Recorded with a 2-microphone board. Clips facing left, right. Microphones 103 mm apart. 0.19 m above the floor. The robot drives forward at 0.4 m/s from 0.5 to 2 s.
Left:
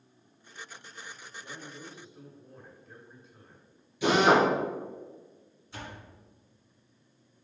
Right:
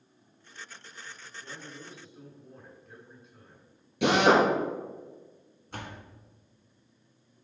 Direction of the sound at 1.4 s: Centre (ahead or behind).